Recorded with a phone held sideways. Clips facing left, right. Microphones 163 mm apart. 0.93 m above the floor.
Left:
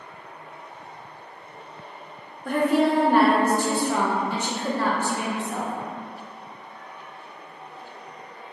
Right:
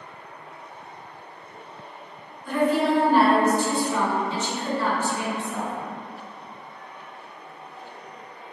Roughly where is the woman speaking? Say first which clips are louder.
Left 1 dB; left.